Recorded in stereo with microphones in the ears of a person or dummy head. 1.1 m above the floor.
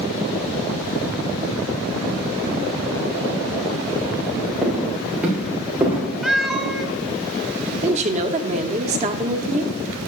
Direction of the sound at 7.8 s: 35° right (ahead or behind).